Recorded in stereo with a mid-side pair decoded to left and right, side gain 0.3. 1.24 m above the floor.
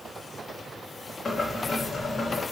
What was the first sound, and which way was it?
Boiling, 55° left.